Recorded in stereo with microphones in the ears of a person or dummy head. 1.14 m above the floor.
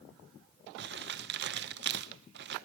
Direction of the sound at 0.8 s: 50° right (ahead or behind).